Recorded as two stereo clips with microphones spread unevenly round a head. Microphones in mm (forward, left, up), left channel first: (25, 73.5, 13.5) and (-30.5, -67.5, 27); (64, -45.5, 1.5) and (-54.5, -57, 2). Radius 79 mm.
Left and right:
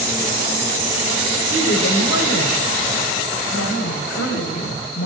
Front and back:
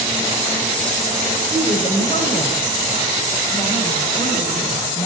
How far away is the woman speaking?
About 7 m.